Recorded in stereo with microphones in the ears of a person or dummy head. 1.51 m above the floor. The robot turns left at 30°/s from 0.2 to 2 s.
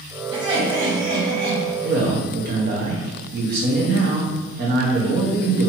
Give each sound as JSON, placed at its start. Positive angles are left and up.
{"t": 0.3, "sound": "laughter", "azimuth_deg": -25, "distance_m": 1.6}
{"t": 1.8, "sound": "a man speaking", "side_deg": -55, "distance_m": 0.7}